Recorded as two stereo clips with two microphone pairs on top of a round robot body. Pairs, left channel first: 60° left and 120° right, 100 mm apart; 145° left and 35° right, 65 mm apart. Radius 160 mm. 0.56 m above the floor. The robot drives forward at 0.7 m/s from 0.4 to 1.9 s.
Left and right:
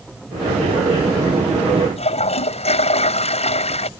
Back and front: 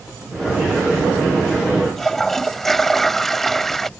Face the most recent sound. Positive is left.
turn(degrees=60)